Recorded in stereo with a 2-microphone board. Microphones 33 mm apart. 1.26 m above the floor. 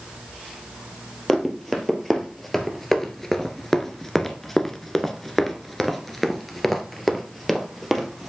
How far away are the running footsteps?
About 2 m.